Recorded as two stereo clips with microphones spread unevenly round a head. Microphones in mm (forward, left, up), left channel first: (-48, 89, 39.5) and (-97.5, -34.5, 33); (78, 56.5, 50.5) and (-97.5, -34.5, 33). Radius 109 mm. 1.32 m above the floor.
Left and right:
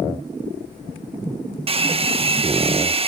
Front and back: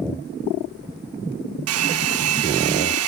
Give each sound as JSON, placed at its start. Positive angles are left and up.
{"t": 1.7, "sound": "a hair dryer", "azimuth_deg": -160}